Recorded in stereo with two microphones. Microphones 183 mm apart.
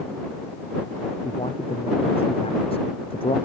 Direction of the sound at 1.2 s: 30° left (ahead or behind).